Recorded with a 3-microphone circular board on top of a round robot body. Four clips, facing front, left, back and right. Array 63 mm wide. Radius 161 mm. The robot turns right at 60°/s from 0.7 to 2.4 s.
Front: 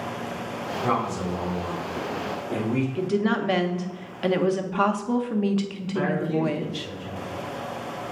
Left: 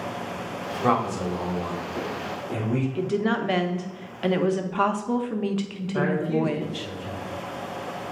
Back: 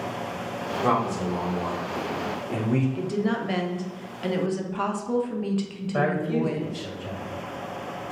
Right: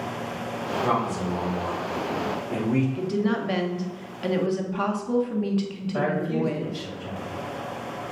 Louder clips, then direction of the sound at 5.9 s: Left 1 dB, back 1 dB; 160° right.